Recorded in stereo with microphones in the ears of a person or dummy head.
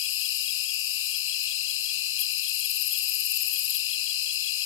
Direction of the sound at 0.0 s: 65° left (ahead or behind).